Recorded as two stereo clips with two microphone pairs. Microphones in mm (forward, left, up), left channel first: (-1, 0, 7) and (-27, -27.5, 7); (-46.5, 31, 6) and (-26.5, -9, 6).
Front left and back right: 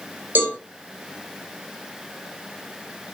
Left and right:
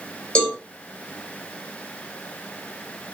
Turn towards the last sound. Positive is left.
turn(degrees=-170)